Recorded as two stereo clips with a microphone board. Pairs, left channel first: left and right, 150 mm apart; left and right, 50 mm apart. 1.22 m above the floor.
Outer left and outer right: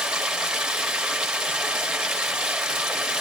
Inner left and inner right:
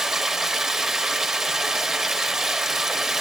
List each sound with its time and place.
0.0 s running water: 5° right (ahead or behind), 1.2 m